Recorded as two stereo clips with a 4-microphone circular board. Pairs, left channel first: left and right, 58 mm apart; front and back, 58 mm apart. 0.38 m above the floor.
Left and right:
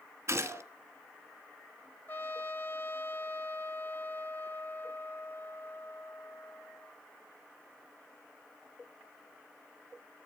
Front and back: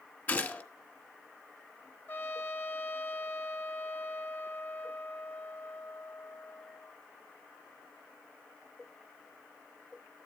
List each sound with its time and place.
0.3 s a gunshot: 65° right, 1.3 m
2.1 s a trumpet: 45° left, 0.5 m